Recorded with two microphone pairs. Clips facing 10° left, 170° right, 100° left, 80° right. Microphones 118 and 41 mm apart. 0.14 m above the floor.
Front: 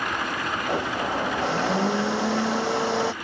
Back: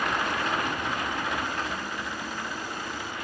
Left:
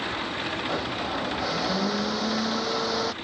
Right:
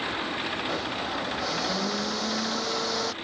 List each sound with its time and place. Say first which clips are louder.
0.7 s a blender: front 5 dB, left 1 dB; 15° left